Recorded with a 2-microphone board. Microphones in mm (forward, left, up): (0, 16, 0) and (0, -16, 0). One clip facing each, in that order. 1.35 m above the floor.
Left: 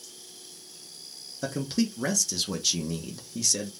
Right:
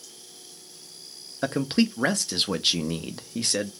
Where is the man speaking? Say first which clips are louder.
Right 5 dB; 40° right (ahead or behind), 0.5 m.